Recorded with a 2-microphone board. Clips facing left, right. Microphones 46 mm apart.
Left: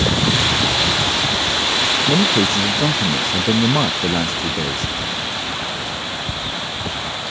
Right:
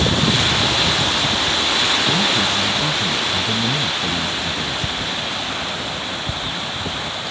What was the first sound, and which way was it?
A man speaking, 55° left (ahead or behind).